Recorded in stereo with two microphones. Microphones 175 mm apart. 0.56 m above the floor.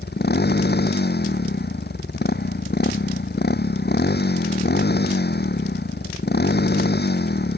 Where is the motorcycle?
80° left.